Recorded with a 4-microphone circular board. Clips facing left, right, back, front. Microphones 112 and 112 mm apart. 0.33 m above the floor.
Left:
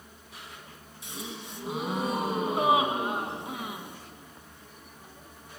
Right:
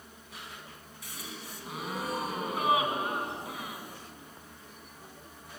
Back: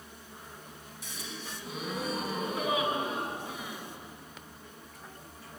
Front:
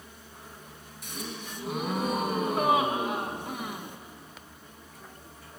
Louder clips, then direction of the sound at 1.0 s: Left 5 dB, front 5 dB; 25° left.